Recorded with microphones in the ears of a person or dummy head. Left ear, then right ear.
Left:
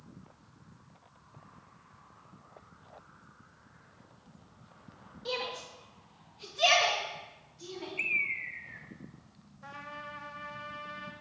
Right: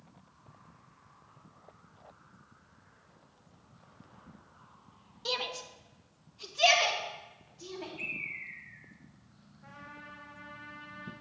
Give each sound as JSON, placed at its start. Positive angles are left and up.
{"t": 5.2, "sound": "a shout", "side_deg": -40, "distance_m": 0.8}
{"t": 8.0, "sound": "a bird", "side_deg": 50, "distance_m": 0.7}
{"t": 9.6, "sound": "a trumpet", "side_deg": 80, "distance_m": 1.1}